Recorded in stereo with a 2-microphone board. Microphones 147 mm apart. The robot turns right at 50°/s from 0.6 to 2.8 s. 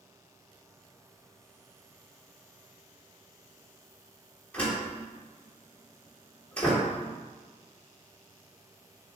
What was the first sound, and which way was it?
A door slam, 10° left (ahead or behind).